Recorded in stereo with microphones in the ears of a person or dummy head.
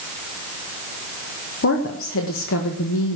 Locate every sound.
1.6 s a woman speaking: 65° left (ahead or behind), 1.5 m